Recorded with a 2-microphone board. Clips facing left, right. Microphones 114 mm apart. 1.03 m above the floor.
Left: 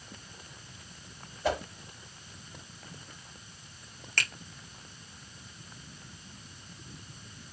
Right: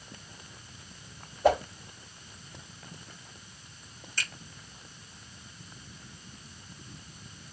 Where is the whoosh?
50° right (ahead or behind), 2 m.